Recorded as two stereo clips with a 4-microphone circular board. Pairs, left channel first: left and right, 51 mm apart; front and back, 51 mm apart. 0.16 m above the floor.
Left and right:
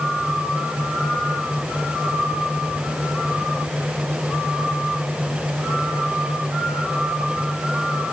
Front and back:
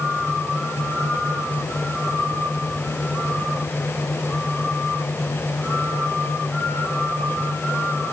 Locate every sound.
Only background noise.